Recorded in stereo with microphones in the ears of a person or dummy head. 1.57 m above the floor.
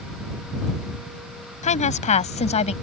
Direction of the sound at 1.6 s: 35° left (ahead or behind).